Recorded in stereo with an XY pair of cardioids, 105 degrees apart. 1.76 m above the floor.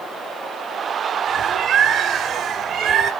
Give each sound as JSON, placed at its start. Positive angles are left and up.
{"t": 1.3, "sound": "a bird", "azimuth_deg": -65, "distance_m": 0.8}